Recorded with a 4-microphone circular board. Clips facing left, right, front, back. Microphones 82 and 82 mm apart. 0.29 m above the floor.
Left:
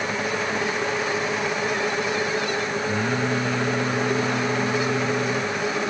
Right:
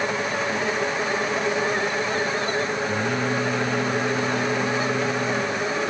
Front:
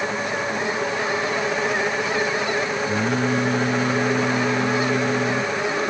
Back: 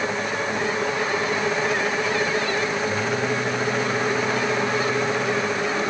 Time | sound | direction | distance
2.9 | singing | straight ahead | ?